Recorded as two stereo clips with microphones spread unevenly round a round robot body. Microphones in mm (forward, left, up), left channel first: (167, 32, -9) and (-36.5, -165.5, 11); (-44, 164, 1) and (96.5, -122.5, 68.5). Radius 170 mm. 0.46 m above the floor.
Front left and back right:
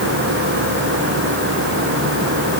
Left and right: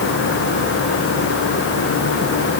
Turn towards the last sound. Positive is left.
No sound to turn to.